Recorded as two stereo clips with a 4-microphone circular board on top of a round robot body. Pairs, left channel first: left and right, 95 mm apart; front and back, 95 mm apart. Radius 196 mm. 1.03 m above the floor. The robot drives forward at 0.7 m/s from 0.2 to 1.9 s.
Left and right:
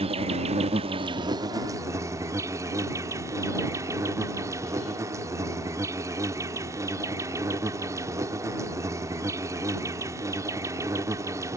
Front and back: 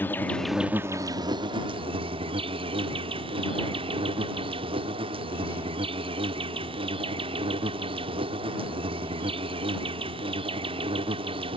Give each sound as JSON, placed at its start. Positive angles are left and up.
{"t": 0.0, "sound": "an insect", "azimuth_deg": -70}